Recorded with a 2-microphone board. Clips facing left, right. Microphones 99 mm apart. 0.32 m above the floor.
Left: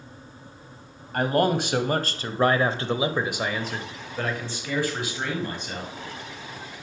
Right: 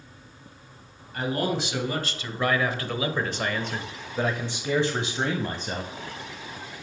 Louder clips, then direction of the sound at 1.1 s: Left 5 dB; 55° left (ahead or behind).